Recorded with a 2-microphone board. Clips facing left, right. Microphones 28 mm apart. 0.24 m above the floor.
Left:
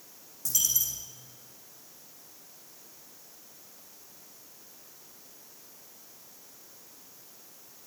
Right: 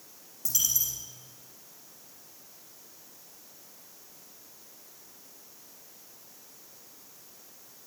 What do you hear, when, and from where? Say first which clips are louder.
0.5 s a dropped coin: even; 5° right (ahead or behind), 4.5 m